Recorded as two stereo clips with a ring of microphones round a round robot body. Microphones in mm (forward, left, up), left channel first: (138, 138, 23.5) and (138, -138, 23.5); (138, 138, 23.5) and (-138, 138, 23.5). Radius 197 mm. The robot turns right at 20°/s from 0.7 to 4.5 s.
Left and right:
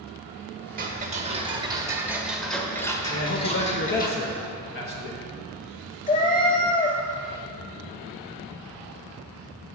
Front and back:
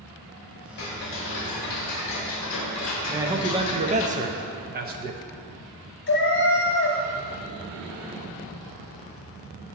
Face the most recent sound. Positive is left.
turn(degrees=35)